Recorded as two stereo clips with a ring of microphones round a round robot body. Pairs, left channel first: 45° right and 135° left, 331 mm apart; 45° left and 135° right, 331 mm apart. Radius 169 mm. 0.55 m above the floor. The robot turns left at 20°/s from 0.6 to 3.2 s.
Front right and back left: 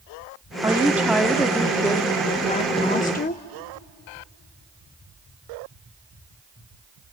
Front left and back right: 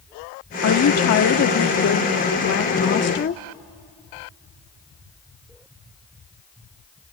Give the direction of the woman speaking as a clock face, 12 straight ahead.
10 o'clock.